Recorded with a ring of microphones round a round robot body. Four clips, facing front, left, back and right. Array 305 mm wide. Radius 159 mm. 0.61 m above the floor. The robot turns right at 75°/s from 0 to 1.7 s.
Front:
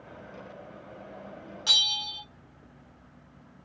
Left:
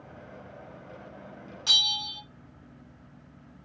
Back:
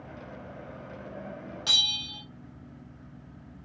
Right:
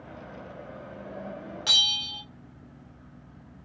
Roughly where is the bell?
Right.